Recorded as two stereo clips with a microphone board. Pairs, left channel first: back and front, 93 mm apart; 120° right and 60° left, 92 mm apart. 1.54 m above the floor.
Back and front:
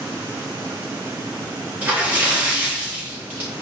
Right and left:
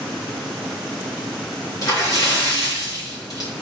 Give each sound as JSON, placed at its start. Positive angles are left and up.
{"t": 1.8, "sound": "a splash", "azimuth_deg": -70, "distance_m": 1.6}